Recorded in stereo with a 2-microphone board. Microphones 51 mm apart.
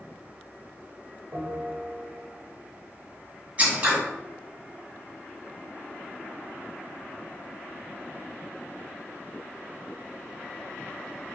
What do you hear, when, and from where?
1.3 s a bell: 45° right (ahead or behind), 1.6 m
3.6 s scissors: 30° right (ahead or behind), 1.5 m